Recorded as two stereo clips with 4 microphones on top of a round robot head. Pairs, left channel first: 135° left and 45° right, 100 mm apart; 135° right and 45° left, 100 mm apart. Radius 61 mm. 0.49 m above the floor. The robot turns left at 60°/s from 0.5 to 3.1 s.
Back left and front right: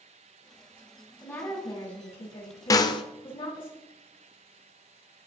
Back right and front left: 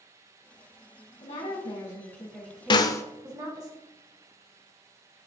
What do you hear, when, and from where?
1.2 s a woman speaking: 150° right, 4 m; by 3.7 s 95° left, 4 m
2.7 s a snare drum: 170° right, 0.8 m; by 3.0 s 170° left, 0.8 m